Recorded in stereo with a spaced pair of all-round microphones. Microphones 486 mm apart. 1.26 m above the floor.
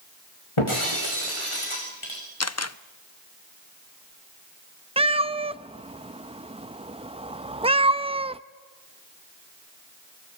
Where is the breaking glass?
80° left, 7 m.